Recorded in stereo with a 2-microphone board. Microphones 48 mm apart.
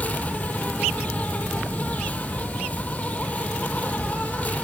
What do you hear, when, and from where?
0.0 s an insect: 35° left (ahead or behind), 1.1 m